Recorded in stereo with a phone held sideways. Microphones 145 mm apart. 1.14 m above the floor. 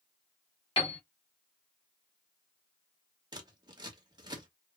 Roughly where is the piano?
Left.